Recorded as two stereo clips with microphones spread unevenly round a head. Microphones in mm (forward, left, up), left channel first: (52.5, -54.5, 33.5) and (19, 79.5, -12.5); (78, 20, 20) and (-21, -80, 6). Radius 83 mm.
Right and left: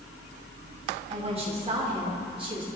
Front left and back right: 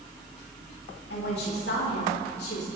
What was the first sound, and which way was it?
A woman speaking, 60° left.